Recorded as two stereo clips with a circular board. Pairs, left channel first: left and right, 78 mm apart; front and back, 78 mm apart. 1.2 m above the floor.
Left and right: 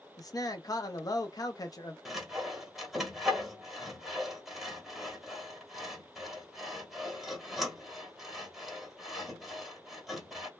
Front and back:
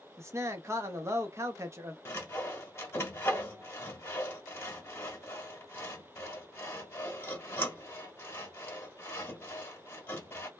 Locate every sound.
0.2 s a man speaking: 125° left, 0.7 m
2.0 s sawing: straight ahead, 1.0 m